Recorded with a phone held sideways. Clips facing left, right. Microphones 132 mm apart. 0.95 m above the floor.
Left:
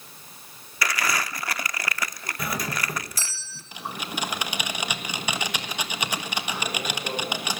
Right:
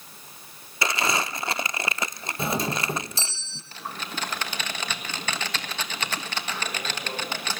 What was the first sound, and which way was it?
Crumpling, 25° right (ahead or behind).